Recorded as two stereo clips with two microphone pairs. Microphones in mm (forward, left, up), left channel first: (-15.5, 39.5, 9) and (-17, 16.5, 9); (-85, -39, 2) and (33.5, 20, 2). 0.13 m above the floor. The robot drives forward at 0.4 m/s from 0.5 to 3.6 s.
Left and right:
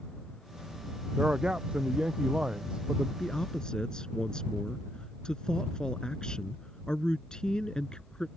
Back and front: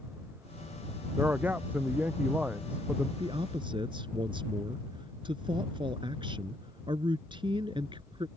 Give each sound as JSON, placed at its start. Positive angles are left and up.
{"t": 1.2, "sound": "a man speaking", "azimuth_deg": -50}
{"t": 3.2, "sound": "a man speaking", "azimuth_deg": 45}